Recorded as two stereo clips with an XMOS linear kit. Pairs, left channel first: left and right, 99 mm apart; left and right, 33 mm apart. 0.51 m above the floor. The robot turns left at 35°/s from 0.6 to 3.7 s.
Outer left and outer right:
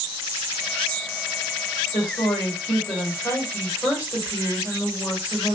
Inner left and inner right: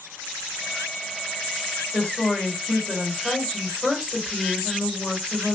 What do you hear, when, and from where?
1.9 s a woman speaking: 90° left, 1.7 m; by 5.6 s 30° left, 1.7 m